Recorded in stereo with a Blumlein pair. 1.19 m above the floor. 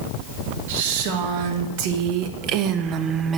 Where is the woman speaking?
55° right, 2.5 m; by 3.4 s 20° right, 0.8 m.